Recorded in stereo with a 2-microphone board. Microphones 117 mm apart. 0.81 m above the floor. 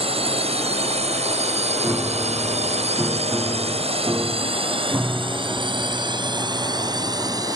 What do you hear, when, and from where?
0.0 s a drone: 60° right (ahead or behind); by 7.6 s 35° right (ahead or behind)
1.8 s a piano: 10° right (ahead or behind)